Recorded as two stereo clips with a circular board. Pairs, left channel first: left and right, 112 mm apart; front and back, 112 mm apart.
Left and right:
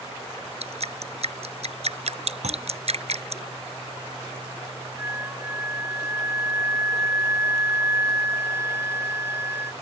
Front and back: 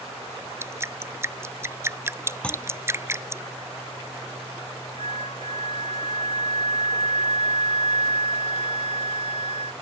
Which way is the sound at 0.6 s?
115° right.